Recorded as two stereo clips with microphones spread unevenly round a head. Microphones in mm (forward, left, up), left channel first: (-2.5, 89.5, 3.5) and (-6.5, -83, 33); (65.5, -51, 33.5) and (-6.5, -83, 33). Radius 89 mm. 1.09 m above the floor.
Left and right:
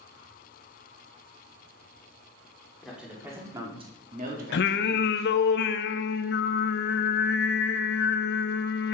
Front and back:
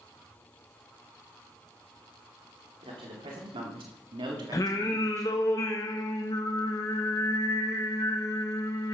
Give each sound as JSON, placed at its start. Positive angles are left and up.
{"t": 2.8, "sound": "a man speaking", "azimuth_deg": 180, "distance_m": 2.5}
{"t": 4.5, "sound": "singing", "azimuth_deg": 80, "distance_m": 0.6}